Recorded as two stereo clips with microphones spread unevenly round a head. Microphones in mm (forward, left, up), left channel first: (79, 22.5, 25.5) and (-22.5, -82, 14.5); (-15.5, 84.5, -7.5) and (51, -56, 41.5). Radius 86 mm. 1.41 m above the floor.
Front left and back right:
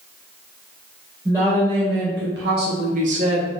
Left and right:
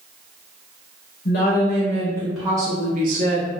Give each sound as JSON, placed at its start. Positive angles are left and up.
{"t": 1.2, "sound": "a woman speaking", "azimuth_deg": 155, "distance_m": 0.9}